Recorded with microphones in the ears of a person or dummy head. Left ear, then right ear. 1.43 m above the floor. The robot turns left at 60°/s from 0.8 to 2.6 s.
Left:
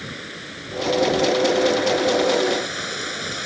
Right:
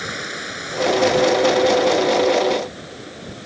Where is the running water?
145° right; by 3.5 s 105° left.